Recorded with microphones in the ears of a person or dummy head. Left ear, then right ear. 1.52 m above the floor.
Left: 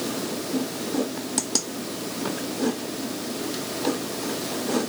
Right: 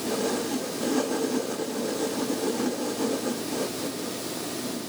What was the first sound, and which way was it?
Only background noise.